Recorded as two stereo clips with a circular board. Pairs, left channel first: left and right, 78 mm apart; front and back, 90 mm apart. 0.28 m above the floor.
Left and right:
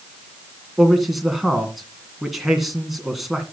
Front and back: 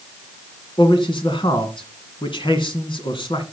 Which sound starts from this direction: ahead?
A man speaking, at 0.8 s.